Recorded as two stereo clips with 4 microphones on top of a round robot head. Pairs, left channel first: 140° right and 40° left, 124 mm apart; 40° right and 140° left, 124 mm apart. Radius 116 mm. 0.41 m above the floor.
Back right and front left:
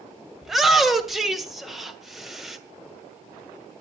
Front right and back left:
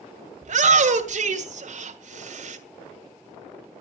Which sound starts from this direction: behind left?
A shout, at 0.4 s.